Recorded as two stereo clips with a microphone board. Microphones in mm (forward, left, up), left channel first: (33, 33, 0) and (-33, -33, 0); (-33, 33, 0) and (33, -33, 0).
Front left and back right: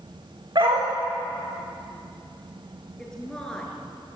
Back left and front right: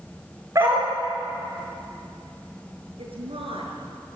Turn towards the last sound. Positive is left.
turn(degrees=-35)